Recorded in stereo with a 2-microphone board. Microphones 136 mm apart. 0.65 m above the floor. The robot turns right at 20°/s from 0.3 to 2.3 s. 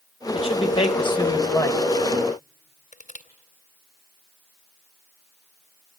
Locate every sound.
0.3 s a man speaking: 45° left (ahead or behind), 3 m; by 1.8 s 20° left (ahead or behind), 3 m
2.9 s crushing: 65° left (ahead or behind), 2 m